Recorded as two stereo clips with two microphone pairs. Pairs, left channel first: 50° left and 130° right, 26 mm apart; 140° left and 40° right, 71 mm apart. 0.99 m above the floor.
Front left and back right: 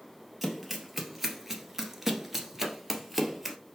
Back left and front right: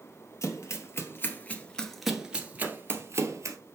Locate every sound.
0.4 s running footsteps: 145° left, 1.5 m; by 3.6 s 50° right, 1.4 m
2.6 s a clap: 90° right, 3 m